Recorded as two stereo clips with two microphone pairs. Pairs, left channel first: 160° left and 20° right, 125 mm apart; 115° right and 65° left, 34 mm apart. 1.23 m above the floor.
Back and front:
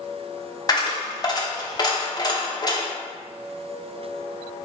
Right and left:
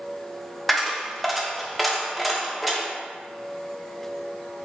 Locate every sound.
0.7 s a dropped coin: 165° left, 0.6 m